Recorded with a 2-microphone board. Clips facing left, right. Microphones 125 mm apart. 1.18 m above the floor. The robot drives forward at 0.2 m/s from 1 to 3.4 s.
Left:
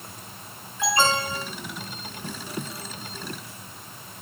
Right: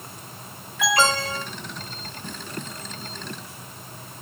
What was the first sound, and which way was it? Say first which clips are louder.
An alarm: right 1 dB; 85° right.